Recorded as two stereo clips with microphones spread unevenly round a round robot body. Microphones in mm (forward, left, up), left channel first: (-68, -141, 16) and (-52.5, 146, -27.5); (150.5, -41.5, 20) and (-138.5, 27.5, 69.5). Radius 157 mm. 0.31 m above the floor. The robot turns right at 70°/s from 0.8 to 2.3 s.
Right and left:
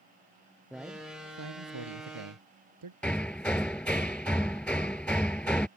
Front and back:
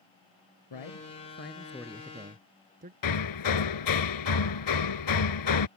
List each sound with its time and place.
0.7 s a man speaking: 5° right; by 2.9 s 100° left
3.0 s hammering: 5° right